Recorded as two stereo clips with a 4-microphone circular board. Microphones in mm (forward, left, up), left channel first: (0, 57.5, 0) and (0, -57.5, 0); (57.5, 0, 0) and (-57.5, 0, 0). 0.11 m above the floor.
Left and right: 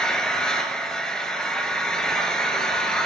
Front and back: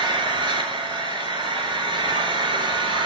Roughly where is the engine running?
Behind.